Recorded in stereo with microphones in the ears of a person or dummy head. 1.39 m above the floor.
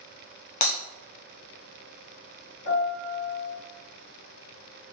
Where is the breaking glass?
40° left (ahead or behind), 0.8 m.